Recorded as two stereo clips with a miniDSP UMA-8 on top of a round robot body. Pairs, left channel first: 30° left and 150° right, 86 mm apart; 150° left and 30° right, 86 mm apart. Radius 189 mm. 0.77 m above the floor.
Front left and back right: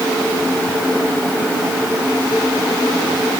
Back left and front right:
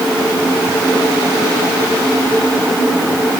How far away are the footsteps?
No footsteps in this recording.